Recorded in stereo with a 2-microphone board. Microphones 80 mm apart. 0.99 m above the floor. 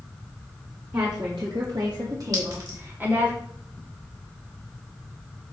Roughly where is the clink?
Right.